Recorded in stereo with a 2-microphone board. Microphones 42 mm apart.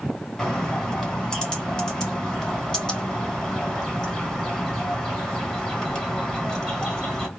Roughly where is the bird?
Centre.